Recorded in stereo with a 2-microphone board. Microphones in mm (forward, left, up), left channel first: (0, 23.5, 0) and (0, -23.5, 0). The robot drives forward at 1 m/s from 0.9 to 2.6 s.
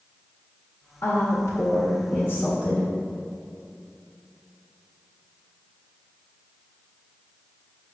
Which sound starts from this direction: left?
A woman speaking, at 1.0 s.